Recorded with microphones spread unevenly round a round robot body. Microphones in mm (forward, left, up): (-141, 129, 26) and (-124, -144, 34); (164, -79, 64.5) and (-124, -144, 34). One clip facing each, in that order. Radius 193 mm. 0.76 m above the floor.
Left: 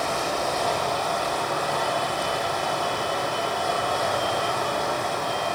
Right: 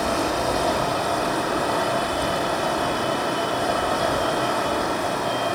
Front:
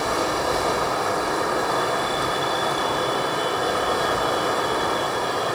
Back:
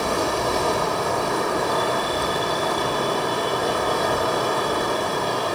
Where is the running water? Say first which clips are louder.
Right 4 dB, back 1 dB; 115° right, 5.5 m.